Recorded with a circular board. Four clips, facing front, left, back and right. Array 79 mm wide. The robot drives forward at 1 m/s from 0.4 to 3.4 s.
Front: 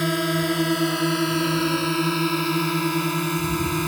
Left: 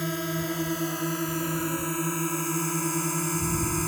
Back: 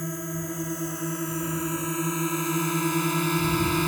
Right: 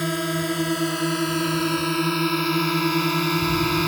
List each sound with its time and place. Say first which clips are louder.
0.0 s a drone: right 5 dB, front 10 dB; 25° right; by 3.9 s 90° right